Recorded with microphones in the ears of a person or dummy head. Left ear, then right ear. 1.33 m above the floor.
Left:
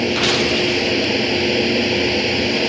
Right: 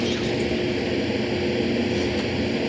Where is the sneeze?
No sneeze in this recording.